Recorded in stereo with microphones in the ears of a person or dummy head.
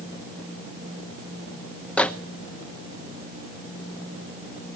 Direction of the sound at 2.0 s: 5° left (ahead or behind).